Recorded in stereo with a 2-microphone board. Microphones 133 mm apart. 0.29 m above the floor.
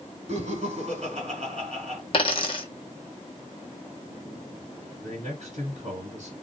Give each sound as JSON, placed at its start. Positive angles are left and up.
{"t": 0.3, "sound": "laughter", "side_deg": -55, "distance_m": 2.5}
{"t": 2.1, "sound": "a dropped coin", "side_deg": 40, "distance_m": 0.8}
{"t": 5.0, "sound": "a man speaking", "side_deg": -55, "distance_m": 1.9}